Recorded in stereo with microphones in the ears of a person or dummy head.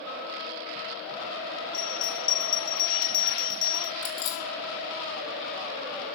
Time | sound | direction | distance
1.7 | a bell | 25° left (ahead or behind) | 0.8 m
4.0 | keys jangling | 25° left (ahead or behind) | 1.3 m